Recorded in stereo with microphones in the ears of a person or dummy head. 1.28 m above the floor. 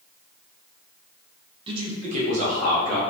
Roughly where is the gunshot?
No gunshot in this recording.